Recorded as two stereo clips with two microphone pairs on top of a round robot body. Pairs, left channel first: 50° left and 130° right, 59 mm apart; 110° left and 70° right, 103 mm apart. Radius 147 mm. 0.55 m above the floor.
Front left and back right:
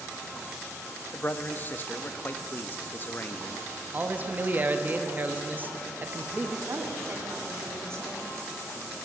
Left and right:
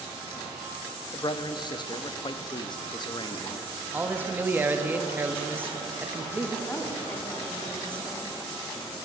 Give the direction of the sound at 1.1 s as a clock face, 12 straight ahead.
9 o'clock.